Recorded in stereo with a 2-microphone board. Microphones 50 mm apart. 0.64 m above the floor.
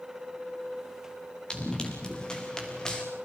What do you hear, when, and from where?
1.5 s running footsteps: 15° left (ahead or behind), 6 m